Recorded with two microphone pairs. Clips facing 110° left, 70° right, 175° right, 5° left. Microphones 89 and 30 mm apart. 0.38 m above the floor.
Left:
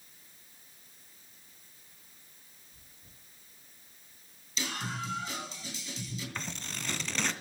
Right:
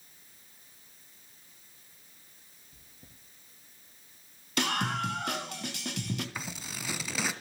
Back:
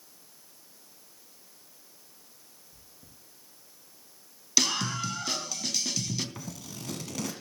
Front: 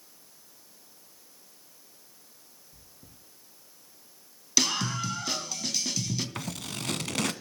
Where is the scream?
85° right, 3.5 m.